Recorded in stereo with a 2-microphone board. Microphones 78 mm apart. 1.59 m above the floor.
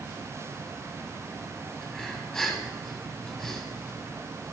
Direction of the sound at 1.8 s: 5° left (ahead or behind).